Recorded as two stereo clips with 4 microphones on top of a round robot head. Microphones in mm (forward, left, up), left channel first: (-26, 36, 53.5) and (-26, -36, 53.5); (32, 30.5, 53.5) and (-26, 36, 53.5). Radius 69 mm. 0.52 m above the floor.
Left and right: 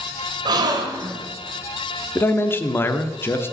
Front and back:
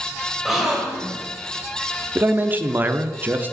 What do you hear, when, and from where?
0.5 s a gasp: 100° right, 1.5 m
2.1 s a man speaking: 130° left, 0.9 m